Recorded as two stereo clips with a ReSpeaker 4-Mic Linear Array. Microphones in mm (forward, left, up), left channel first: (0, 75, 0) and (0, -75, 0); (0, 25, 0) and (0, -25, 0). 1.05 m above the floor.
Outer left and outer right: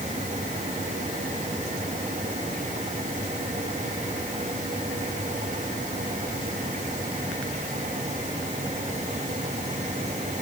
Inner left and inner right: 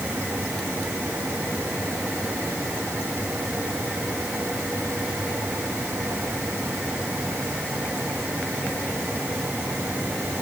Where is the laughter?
I don't hear laughter.